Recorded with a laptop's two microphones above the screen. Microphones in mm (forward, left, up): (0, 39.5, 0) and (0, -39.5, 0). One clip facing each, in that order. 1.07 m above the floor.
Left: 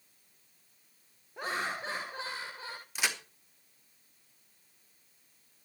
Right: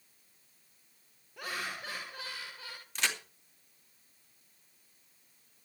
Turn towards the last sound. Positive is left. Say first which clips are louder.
# even
turn(degrees=10)  # may be behind; listen again after turning